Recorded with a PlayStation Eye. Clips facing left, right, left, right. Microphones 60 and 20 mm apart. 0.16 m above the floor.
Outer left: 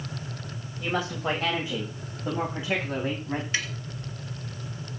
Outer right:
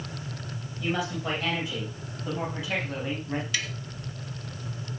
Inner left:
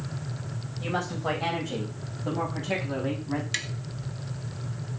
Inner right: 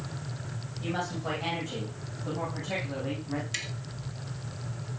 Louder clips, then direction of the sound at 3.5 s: Outer left 4 dB, inner left 4 dB; 30° left (ahead or behind).